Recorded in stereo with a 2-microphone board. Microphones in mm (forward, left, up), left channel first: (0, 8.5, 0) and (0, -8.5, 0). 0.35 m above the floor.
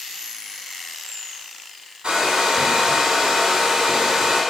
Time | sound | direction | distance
2.0 | a hair dryer | 80° right | 1.3 m